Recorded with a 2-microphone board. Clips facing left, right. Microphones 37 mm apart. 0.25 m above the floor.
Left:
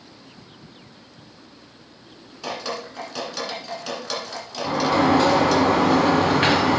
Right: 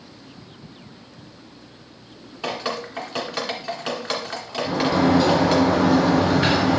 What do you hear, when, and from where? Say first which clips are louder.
2.4 s dripping: right 3 dB; 30° right (ahead or behind), 2.0 m
4.6 s a sliding door: left 1 dB; 50° left (ahead or behind), 1.8 m